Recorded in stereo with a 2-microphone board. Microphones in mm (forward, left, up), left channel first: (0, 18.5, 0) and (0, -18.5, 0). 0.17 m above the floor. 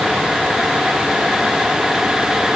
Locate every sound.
Only background noise.